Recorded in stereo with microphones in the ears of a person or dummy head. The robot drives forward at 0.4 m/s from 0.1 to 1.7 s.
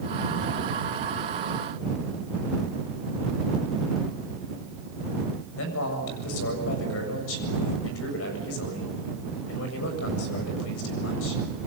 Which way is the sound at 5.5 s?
90° left.